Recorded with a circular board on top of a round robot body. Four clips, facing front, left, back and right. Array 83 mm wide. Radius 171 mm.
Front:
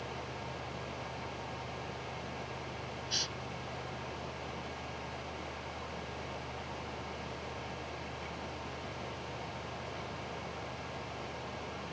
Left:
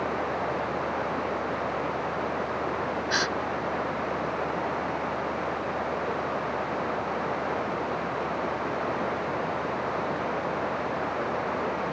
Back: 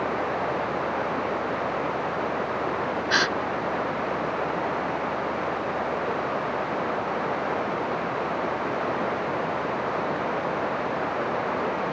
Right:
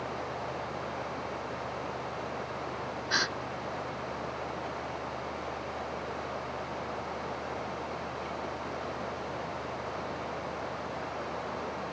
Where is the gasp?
175° left.